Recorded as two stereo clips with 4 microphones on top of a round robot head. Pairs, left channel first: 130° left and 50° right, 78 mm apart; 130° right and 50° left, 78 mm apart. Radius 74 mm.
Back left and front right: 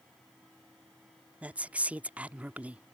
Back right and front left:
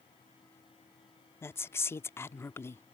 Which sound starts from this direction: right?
A woman speaking, at 1.4 s.